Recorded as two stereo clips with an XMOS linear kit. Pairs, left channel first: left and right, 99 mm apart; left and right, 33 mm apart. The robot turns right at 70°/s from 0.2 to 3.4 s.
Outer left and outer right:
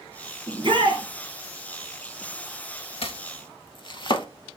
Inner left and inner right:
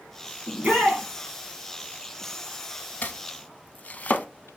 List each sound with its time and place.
0.5 s a shout: 130° right, 2.5 m; by 1.0 s 90° right, 2.5 m
3.0 s chopping: 70° left (ahead or behind), 0.6 m; by 4.3 s 55° left (ahead or behind), 0.6 m